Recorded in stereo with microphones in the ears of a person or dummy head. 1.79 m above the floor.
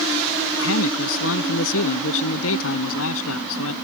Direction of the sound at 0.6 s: 75° left (ahead or behind).